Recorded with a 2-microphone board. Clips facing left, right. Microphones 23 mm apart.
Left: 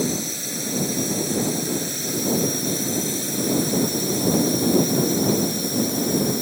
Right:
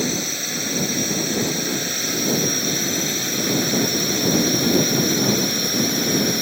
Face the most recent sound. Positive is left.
turn(degrees=-40)  # may be behind; listen again after turning